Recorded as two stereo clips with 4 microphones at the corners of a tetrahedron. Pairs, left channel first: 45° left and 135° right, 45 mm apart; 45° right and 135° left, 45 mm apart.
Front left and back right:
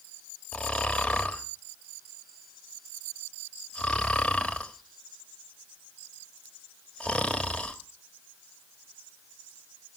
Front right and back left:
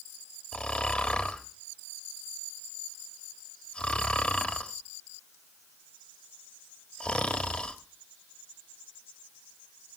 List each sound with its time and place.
0.5 s snoring: 10° right, 1.3 m